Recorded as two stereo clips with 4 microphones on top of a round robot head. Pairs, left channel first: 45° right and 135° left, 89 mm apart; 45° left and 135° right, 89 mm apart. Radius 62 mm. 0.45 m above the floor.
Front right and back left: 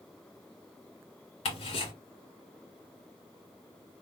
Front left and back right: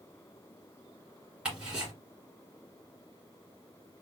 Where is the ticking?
55° right, 2 m.